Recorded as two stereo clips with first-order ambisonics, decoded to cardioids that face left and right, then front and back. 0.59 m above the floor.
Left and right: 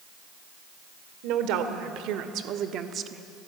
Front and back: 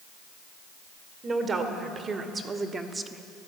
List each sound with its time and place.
1.2 s a woman speaking: 110° right, 1.9 m; by 3.2 s 115° right, 0.8 m